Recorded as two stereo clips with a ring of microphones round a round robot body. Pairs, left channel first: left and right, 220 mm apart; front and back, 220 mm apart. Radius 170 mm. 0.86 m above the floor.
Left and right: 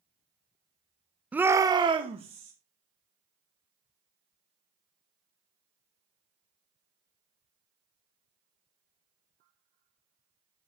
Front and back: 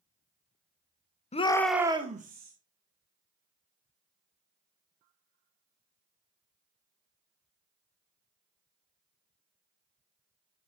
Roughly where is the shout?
Ahead.